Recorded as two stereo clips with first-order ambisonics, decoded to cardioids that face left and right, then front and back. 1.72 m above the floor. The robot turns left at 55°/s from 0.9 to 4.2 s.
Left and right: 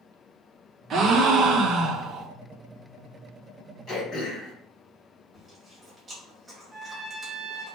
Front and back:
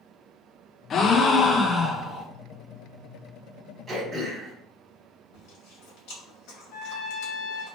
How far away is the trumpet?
About 0.9 m.